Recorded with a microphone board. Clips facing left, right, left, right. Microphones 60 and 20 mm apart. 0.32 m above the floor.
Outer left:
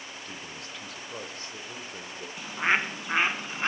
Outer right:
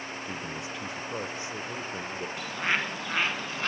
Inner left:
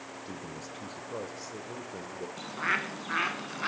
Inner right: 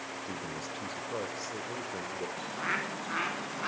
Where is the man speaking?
15° right (ahead or behind), 1.0 m.